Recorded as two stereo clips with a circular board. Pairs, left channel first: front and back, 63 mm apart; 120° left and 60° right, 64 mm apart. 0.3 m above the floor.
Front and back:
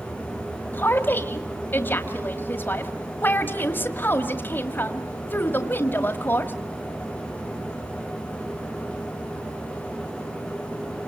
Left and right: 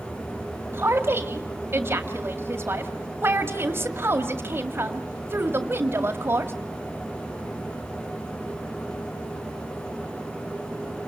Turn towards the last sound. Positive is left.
turn(degrees=-35)